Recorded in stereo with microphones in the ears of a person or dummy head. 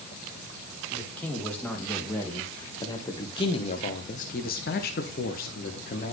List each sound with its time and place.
0.9 s a man speaking: 5° left (ahead or behind), 2 m; by 6.1 s 45° left (ahead or behind), 1.2 m